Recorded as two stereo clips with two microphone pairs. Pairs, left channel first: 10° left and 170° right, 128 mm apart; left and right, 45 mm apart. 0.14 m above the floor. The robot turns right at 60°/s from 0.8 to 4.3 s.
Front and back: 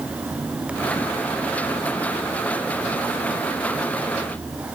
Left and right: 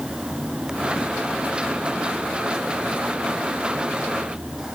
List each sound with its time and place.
Only background noise.